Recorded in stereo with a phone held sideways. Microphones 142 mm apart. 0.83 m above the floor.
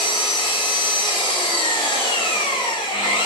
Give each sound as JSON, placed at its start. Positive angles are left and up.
{"t": 0.0, "sound": "an engine running", "side_deg": 35, "distance_m": 0.9}